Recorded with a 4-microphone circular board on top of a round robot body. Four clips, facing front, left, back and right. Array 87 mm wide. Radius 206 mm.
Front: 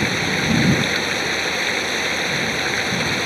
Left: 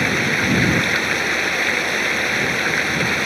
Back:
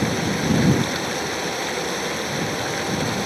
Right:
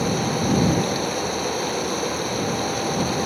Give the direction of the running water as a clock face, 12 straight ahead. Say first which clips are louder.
Left 2 dB, even; 10 o'clock.